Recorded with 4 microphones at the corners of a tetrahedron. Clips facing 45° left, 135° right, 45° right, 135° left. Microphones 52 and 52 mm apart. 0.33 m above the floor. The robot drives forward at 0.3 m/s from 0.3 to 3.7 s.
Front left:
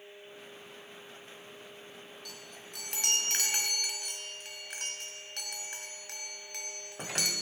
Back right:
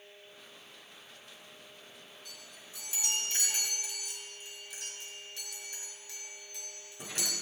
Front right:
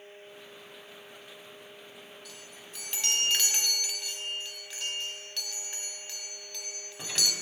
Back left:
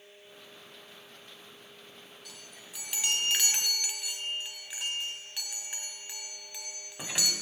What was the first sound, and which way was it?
A chime, 45° left.